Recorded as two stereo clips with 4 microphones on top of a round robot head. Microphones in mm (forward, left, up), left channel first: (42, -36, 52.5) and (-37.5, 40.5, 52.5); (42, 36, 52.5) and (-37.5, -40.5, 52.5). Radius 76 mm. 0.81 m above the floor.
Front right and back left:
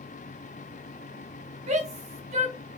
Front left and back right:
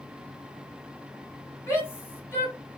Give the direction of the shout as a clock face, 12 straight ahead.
8 o'clock.